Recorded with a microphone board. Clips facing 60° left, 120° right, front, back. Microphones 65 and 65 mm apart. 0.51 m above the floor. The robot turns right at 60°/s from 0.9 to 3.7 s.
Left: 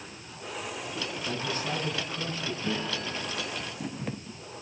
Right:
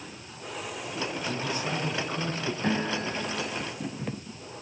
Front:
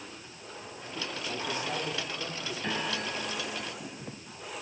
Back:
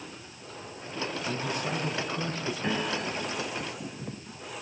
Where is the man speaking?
145° left, 6.5 m; by 2.5 s 140° right, 6.5 m.